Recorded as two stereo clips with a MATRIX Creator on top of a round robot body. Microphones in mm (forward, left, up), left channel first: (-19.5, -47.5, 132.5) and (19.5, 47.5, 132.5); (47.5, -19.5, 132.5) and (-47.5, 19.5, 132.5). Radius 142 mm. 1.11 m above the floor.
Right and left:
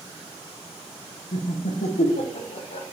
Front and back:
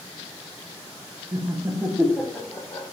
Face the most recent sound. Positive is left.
turn(degrees=-90)